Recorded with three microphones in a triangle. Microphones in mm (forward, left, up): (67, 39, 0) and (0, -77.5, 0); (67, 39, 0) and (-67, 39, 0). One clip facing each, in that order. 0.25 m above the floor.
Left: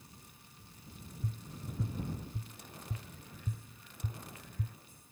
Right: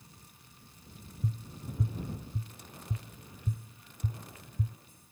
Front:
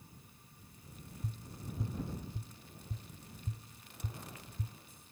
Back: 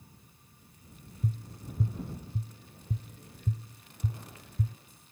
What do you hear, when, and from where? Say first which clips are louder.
1.2 s tapping: right 5 dB, back 9 dB; 165° left